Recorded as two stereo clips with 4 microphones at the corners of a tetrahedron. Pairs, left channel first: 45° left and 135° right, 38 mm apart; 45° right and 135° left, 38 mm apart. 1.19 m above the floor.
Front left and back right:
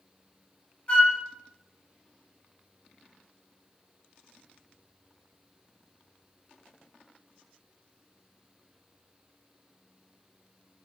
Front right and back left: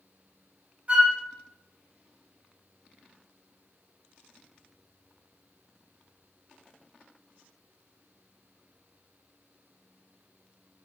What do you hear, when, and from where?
0.9 s a flute: 95° left, 0.5 m